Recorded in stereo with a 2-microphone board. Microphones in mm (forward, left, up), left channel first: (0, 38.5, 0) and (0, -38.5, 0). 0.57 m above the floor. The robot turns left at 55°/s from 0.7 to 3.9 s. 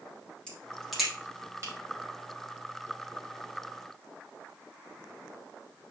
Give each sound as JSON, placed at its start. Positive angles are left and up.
{"t": 0.5, "sound": "a crack", "side_deg": 15, "distance_m": 4.5}